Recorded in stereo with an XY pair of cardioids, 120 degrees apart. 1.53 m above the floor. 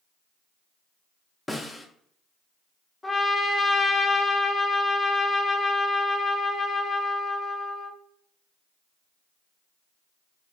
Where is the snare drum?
15° left, 0.5 m.